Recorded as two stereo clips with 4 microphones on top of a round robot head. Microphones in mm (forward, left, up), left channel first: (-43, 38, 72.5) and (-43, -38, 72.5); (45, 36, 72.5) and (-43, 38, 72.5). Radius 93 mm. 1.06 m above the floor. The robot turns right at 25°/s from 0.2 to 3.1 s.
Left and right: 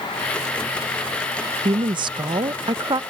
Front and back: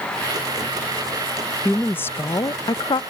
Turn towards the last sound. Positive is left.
turn(degrees=-45)